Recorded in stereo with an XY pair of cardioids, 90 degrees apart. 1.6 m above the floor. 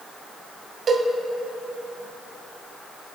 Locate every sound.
0.9 s a cowbell: 60° right, 1.9 m